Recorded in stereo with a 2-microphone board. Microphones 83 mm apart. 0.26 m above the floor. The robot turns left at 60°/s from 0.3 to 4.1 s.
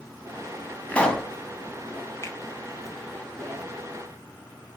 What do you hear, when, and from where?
0.9 s a pop: 20° left (ahead or behind), 1.1 m; by 1.3 s centre (ahead or behind), 1.1 m
2.2 s a finger snap: 30° left (ahead or behind), 1.6 m